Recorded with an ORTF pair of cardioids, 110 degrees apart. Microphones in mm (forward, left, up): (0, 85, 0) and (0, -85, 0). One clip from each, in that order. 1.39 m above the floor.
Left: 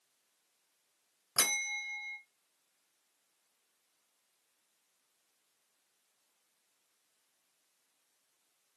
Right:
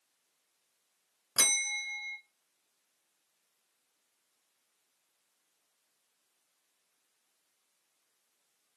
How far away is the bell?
About 0.6 m.